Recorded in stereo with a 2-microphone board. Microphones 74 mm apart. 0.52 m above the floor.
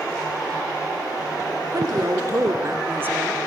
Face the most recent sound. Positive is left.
turn(degrees=-15)  # may be behind; listen again after turning